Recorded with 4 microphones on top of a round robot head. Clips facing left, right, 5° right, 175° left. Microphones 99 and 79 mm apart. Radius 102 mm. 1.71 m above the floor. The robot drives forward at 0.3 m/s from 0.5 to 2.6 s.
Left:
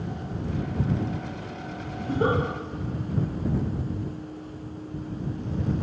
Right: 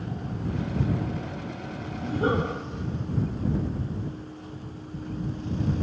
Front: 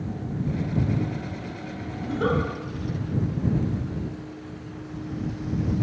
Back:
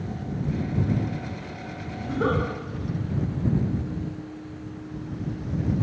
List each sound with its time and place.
2.0 s a giggle: 90° left, 1.0 m; by 2.4 s 100° left, 1.0 m